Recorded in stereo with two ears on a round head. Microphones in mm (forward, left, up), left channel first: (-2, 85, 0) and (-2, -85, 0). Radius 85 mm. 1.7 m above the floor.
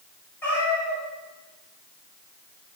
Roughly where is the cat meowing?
Centre.